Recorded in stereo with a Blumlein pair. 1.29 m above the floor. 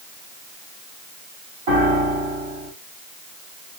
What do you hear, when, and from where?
1.7 s a piano: 50° right, 1.7 m